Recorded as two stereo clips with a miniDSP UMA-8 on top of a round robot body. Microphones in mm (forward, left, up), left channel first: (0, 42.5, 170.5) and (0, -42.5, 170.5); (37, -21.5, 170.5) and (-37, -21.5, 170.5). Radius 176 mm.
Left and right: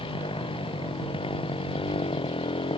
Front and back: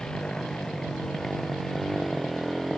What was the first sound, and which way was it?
A motorcycle, 85° left.